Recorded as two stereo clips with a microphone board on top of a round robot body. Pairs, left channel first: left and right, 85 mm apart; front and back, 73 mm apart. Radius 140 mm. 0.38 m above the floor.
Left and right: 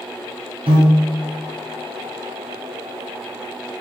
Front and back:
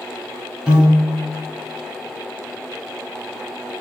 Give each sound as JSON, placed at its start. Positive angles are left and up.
{"t": 0.7, "sound": "a piano", "azimuth_deg": -105, "distance_m": 0.9}